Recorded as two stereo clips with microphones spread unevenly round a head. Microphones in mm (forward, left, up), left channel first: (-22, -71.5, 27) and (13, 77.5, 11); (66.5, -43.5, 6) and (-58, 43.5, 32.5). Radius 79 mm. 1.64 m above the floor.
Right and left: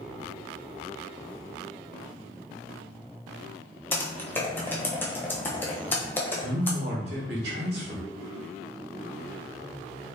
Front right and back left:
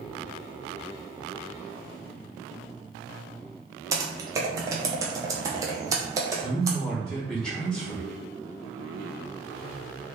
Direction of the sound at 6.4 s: 55° left.